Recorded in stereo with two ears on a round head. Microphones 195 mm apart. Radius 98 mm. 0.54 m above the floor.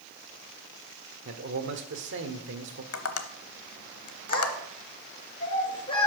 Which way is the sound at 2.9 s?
80° left.